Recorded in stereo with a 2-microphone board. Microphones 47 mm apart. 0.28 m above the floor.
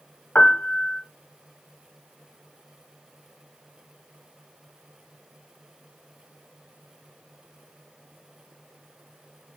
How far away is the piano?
About 0.8 m.